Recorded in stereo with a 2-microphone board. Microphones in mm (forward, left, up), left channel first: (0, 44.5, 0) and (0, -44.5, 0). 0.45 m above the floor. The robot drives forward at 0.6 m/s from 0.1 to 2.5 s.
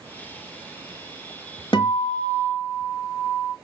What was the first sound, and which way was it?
A guitar, 70° left (ahead or behind).